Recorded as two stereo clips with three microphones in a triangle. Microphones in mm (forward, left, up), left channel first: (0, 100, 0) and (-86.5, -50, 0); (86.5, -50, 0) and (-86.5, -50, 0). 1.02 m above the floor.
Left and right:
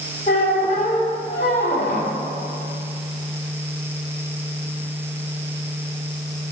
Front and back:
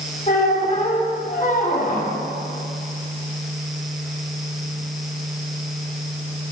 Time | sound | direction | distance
0.3 | a squeak | 40° left | 1.0 m